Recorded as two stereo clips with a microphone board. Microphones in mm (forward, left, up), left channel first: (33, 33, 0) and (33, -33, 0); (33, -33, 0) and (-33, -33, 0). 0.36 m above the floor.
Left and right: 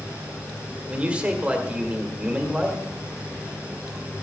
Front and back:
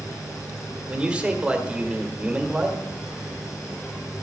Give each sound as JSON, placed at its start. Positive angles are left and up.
{"t": 0.9, "sound": "a man speaking", "azimuth_deg": -135, "distance_m": 1.3}